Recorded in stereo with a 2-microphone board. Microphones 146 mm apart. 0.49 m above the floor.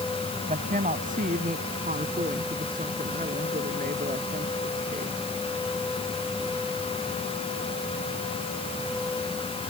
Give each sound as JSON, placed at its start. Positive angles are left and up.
{"t": 0.4, "sound": "a woman speaking", "side_deg": -60}